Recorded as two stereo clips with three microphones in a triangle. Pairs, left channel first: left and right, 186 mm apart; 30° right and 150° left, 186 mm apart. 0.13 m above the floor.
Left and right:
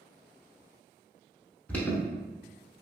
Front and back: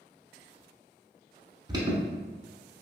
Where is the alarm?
160° left, 0.8 m.